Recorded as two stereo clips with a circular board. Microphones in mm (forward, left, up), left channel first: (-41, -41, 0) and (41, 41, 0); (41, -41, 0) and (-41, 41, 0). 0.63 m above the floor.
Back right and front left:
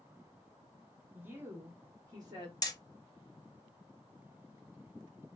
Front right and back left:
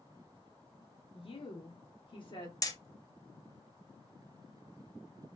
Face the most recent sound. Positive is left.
turn(degrees=-90)